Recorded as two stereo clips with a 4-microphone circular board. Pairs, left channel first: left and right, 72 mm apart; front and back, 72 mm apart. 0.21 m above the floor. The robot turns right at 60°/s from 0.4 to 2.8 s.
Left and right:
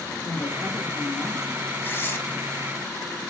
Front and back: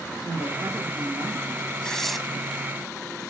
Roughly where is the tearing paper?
Left.